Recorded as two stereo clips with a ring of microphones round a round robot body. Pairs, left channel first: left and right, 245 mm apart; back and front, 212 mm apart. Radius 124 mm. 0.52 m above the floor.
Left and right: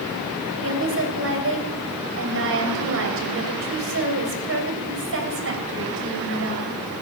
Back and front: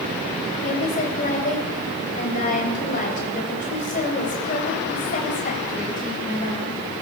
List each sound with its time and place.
0.6 s a woman speaking: 125° right, 3 m